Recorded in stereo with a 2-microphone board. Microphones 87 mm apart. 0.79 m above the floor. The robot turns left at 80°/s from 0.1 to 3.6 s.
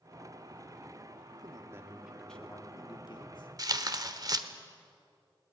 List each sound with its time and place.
1.3 s a man speaking: 110° right, 1.9 m; by 3.5 s 75° left, 1.9 m
3.6 s tearing paper: 45° right (ahead or behind), 1.1 m